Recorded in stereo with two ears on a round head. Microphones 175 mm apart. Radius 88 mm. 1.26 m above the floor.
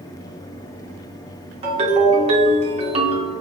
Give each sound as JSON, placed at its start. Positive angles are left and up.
{"t": 1.6, "sound": "a ringtone", "side_deg": -30, "distance_m": 0.8}